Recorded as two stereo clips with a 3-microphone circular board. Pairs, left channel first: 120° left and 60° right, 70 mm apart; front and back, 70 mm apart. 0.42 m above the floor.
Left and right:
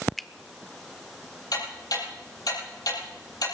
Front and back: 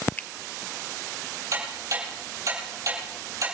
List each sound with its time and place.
0.2 s a finger snap: 35° left, 0.5 m
1.5 s ticking: 140° left, 8.5 m